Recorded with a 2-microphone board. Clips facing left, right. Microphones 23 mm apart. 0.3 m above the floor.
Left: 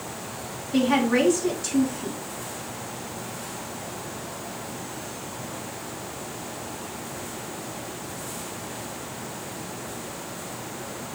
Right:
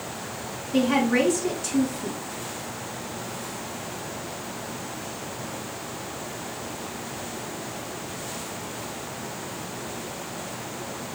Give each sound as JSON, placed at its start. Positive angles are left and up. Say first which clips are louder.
{"t": 0.7, "sound": "a woman speaking", "louder": "even", "side_deg": 25, "distance_m": 2.5}